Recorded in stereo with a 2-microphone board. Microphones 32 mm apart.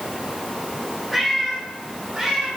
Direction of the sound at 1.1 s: 5° right (ahead or behind).